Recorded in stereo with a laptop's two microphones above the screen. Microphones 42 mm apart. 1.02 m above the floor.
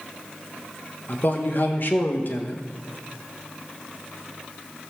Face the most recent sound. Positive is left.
turn(degrees=55)  # may be behind; listen again after turning